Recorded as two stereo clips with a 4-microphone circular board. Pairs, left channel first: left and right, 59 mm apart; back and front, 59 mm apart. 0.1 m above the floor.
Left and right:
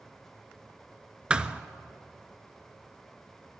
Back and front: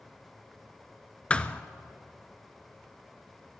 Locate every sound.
1.3 s a thud: 140° right, 0.5 m